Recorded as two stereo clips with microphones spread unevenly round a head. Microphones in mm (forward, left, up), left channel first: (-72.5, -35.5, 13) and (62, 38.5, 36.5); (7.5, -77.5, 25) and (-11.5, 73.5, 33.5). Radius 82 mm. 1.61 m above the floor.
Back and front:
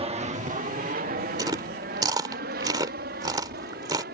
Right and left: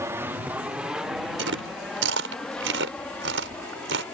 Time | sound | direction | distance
0.0 | an aircraft | 40° left | ?
1.4 | chewing | 95° left | ?